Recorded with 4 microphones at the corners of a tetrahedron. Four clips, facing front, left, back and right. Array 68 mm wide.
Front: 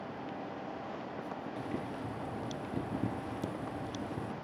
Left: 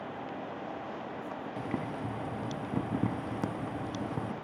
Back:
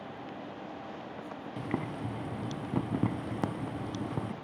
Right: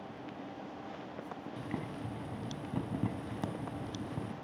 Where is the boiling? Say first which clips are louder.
Left 5 dB, back 6 dB; 165° left, 0.7 m.